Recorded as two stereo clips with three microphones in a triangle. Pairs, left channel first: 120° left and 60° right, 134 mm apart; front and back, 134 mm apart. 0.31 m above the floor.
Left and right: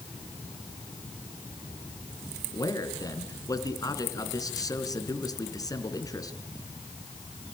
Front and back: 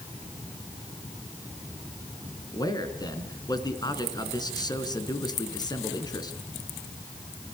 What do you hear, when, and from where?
2.5 s a man speaking: 60° left, 3.5 m